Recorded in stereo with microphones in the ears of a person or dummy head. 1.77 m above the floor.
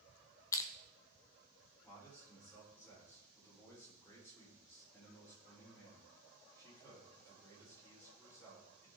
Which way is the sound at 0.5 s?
20° left (ahead or behind).